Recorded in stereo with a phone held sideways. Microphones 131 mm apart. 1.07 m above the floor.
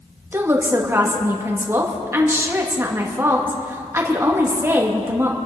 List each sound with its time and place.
0.3 s a woman speaking: 20° right (ahead or behind), 1.9 m